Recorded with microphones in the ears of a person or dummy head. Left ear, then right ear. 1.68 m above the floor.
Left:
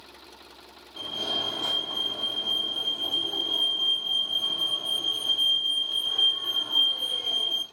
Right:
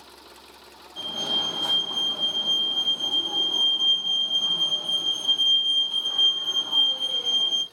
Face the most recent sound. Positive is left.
turn(degrees=0)  # may be behind; listen again after turning